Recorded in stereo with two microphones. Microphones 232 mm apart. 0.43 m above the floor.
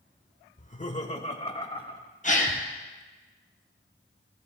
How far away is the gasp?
About 2 m.